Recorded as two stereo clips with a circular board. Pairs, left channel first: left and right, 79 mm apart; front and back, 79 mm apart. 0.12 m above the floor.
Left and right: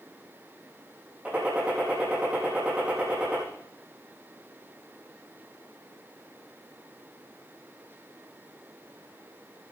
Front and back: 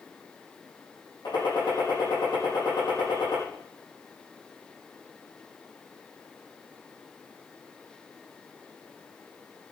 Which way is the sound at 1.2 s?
15° right.